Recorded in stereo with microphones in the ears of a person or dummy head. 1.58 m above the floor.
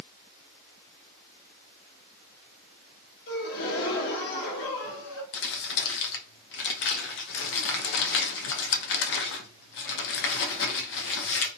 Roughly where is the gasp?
Left.